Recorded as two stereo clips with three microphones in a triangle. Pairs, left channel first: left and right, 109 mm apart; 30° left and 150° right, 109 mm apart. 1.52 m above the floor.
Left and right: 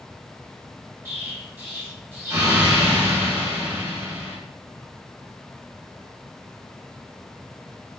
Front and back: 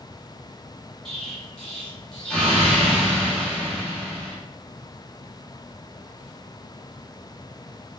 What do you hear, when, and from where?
1.1 s an explosion: 45° right, 0.8 m